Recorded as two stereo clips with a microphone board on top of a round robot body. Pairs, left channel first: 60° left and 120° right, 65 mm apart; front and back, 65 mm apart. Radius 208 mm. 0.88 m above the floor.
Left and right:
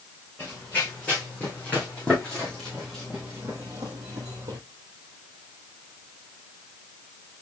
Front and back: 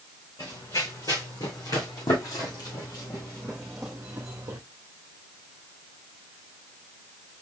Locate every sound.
0.4 s running footsteps: 5° right, 3 m; by 4.6 s 150° right, 1.2 m